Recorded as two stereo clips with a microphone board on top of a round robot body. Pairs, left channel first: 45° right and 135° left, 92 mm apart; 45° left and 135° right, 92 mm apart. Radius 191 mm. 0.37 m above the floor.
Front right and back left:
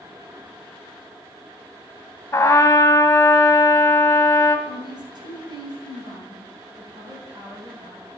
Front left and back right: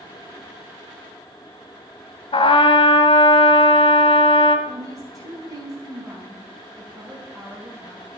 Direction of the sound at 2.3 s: 20° left.